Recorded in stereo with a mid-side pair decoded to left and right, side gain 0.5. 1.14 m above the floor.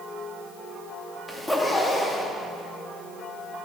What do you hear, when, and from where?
1.3 s a zipper: 10° left, 2 m